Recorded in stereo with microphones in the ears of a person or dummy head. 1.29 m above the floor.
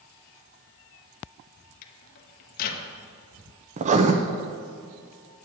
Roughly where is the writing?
Right.